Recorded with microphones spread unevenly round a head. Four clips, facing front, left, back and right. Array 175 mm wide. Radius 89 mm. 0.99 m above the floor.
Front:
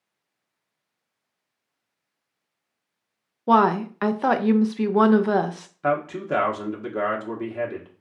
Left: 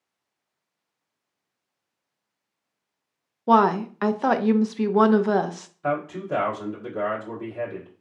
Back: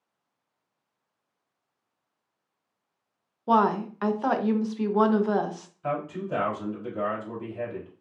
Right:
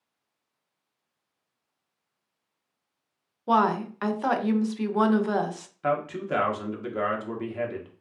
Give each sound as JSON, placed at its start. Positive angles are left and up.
{"t": 3.5, "sound": "a woman speaking", "azimuth_deg": 35, "distance_m": 0.5}
{"t": 5.8, "sound": "a man speaking", "azimuth_deg": -10, "distance_m": 1.4}